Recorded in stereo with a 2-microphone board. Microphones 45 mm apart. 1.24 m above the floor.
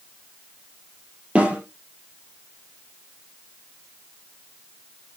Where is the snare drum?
30° right (ahead or behind), 5 m.